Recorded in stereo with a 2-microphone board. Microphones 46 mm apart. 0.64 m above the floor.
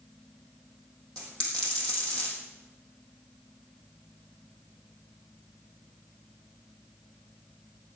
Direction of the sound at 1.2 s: 20° left (ahead or behind).